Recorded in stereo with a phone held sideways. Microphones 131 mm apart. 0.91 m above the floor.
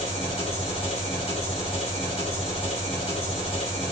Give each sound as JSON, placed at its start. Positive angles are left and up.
{"t": 0.0, "sound": "an engine running", "side_deg": 45, "distance_m": 1.8}